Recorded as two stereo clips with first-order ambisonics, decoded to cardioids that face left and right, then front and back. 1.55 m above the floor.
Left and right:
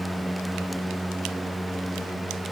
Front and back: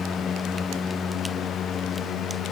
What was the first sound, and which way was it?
Only background noise.